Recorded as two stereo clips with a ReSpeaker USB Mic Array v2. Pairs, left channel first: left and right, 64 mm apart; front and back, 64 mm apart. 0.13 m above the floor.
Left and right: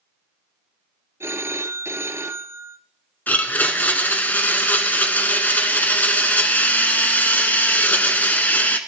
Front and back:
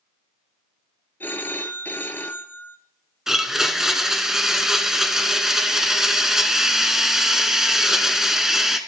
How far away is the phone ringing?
About 1.2 m.